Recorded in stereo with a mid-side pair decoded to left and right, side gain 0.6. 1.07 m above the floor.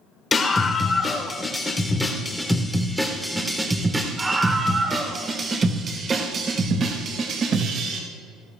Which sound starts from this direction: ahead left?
A scream, at 0.3 s.